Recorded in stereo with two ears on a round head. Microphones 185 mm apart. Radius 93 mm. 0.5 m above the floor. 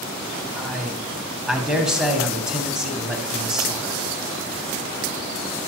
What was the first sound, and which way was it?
A man speaking, 5° right (ahead or behind).